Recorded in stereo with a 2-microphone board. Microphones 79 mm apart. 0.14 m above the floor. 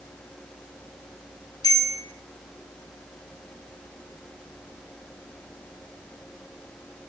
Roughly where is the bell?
Left.